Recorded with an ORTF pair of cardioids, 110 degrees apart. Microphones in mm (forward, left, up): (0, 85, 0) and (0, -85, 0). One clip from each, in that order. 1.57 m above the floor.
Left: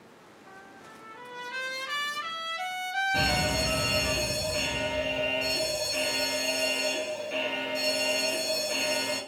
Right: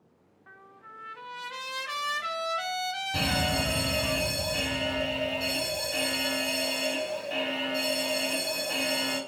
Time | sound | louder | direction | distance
0.5 | a trumpet | even | 20° right | 0.8 m
3.1 | a fire alarm | right 1 dB | 45° right | 1.9 m